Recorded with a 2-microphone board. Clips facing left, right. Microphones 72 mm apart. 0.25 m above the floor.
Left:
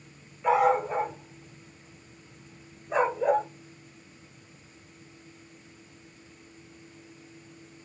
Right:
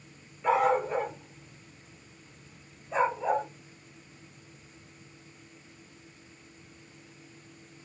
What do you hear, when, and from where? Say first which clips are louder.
0.4 s a dog barking: left 2 dB; 10° left (ahead or behind), 0.9 m; by 3.5 s 75° left (ahead or behind), 1.7 m